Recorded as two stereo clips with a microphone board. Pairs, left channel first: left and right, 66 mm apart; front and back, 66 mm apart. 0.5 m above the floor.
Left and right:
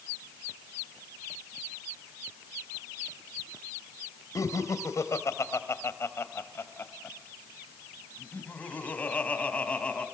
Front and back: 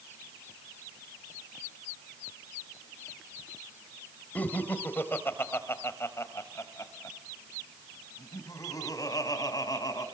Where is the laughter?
60° left, 3 m; by 10.1 s 20° left, 4.5 m.